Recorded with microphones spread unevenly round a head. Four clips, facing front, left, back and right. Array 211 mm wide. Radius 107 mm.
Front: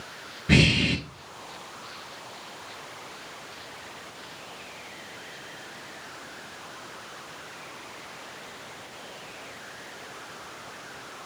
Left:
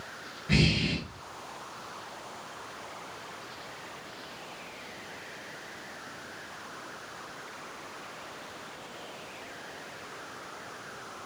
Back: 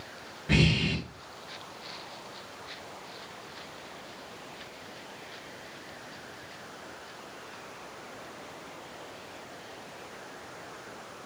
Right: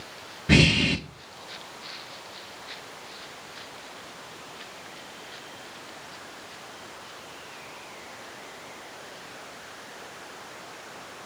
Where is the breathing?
60° right, 1.4 m.